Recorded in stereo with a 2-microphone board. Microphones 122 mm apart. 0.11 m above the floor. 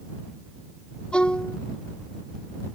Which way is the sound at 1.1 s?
10° left (ahead or behind).